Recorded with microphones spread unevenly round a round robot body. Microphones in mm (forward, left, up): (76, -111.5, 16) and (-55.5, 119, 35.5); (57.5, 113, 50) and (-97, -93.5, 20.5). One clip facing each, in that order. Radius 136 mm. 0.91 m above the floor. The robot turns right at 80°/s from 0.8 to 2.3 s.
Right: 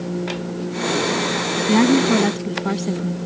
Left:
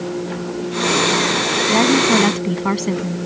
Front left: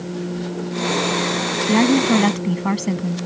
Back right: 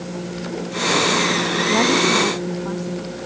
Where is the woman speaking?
10° right; by 3.2 s 40° left.